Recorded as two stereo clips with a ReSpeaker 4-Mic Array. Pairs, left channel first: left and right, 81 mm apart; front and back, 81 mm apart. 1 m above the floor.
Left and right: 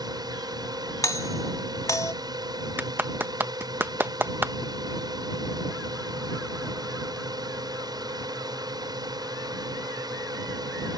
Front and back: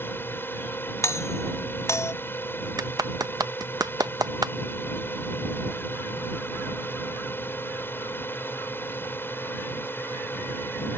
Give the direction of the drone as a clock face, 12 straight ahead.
2 o'clock.